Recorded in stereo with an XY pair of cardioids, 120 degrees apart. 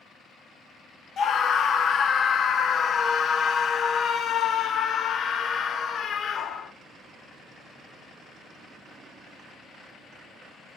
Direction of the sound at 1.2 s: 45° left.